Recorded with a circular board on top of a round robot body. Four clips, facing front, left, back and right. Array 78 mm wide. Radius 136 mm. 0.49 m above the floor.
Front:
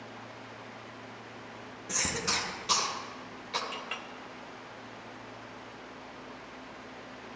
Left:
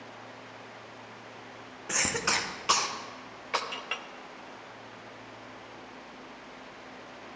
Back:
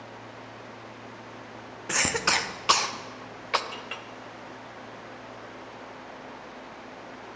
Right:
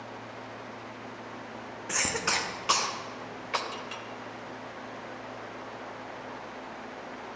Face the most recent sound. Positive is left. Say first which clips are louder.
# even, back 1 dB
turn(degrees=90)